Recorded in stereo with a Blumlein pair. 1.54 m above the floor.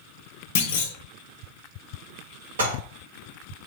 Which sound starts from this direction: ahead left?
A clunk, at 0.6 s.